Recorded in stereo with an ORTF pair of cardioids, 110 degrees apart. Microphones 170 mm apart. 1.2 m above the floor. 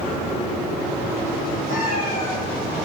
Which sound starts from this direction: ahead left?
A cat meowing, at 1.7 s.